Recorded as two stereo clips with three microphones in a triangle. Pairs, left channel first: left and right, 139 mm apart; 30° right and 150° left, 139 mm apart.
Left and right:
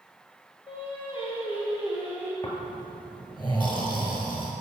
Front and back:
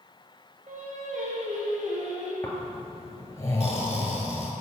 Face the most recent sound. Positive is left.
turn(degrees=40)